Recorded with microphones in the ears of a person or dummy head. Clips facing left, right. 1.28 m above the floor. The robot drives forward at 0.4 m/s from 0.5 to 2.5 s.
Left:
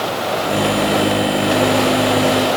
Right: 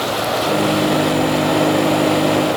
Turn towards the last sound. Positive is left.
No sound to turn to.